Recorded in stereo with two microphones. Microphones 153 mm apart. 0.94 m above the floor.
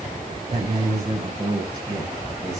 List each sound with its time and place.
0.5 s a man speaking: 45° right (ahead or behind), 5.5 m; by 2.6 s 30° right (ahead or behind), 6 m